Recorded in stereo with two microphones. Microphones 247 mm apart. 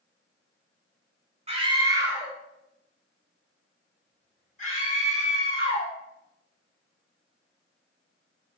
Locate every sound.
1.5 s a scream: 25° right (ahead or behind), 1.1 m; by 5.9 s 40° left (ahead or behind), 2.5 m